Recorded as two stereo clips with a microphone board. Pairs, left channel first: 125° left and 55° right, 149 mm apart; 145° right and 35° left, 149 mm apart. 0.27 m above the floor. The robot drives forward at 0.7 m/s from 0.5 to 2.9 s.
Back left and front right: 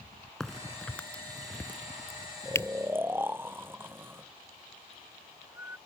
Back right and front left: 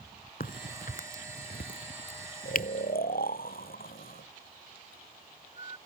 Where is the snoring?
130° right.